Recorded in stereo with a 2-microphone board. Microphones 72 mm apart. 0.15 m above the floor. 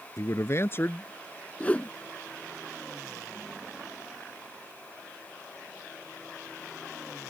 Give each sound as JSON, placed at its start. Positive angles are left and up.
{"t": 0.2, "sound": "a man speaking", "side_deg": 50}
{"t": 1.6, "sound": "a whoosh", "side_deg": 20}